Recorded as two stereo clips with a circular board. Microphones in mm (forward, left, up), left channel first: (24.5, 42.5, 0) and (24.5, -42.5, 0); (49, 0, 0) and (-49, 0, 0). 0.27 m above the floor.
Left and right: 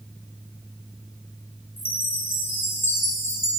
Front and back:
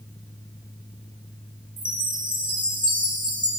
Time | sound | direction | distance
1.8 | a chime | 150° left | 1.6 m